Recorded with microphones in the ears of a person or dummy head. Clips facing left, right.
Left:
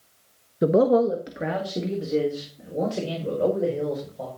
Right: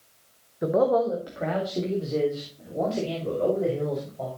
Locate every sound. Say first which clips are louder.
0.6 s a man speaking: left 4 dB; 35° left (ahead or behind), 0.9 m; by 4.3 s 15° left (ahead or behind), 6 m